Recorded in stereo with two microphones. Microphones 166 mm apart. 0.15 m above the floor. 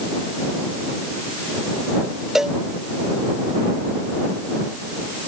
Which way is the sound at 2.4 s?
Centre (ahead or behind).